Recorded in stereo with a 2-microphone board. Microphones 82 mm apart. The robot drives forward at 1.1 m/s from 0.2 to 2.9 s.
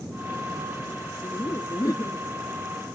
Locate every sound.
1.2 s laughter: 55° left (ahead or behind); by 2.2 s 45° left (ahead or behind)